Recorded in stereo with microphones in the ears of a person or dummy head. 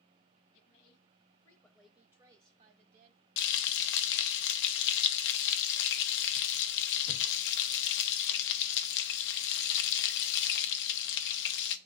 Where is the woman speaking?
55° left (ahead or behind), 1.7 m; by 3.2 s 60° right (ahead or behind), 1.7 m.